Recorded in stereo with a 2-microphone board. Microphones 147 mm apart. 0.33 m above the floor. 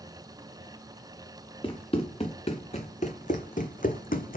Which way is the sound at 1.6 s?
40° left (ahead or behind).